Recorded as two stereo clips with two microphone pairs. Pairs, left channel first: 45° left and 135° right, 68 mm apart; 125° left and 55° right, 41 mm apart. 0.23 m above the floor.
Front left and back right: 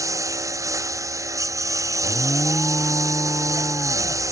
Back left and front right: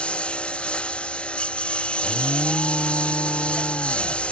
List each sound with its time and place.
0.0 s a lawn mower: 170° right
2.0 s an alarm: 105° left